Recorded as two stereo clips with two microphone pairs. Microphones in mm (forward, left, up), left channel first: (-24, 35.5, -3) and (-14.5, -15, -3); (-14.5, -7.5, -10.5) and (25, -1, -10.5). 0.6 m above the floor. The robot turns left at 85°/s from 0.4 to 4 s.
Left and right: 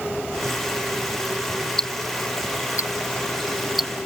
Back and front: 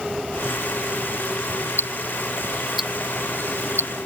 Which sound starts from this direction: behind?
Ticking, at 1.8 s.